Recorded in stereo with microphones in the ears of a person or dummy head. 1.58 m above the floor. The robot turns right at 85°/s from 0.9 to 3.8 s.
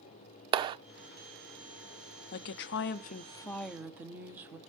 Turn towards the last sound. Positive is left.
turn(degrees=-170)